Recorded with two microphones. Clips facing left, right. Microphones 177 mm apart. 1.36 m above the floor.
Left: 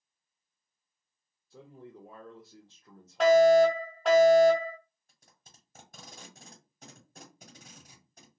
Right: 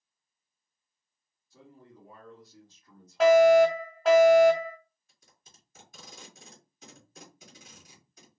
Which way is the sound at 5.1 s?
45° left (ahead or behind).